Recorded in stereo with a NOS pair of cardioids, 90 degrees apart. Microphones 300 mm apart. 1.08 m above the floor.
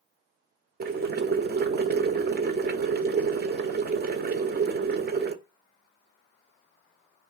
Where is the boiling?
30° right, 0.6 m.